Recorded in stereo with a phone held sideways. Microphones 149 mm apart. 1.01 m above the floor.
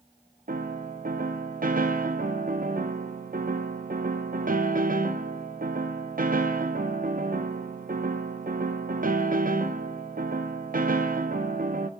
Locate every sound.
0.5 s a piano: 70° right (ahead or behind), 0.6 m